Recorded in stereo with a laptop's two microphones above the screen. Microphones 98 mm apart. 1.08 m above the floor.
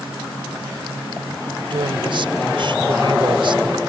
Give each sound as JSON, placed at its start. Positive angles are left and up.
{"t": 1.7, "sound": "a woman speaking", "side_deg": -60}